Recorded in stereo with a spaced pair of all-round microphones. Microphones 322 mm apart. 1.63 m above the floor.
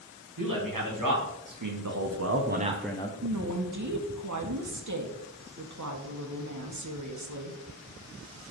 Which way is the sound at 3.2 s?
60° right (ahead or behind).